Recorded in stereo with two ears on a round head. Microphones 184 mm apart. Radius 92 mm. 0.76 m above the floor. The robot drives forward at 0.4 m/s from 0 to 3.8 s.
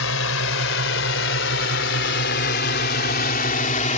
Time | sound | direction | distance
0.0 | a drone | 75° left (ahead or behind) | ?